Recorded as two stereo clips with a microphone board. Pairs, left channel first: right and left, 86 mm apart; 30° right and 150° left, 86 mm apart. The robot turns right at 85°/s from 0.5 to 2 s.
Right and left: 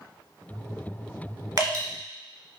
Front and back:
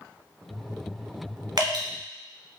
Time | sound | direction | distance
1.6 | dripping | 120° left | 1.2 m